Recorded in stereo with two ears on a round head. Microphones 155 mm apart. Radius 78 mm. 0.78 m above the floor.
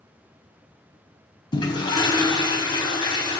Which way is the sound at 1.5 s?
25° left (ahead or behind).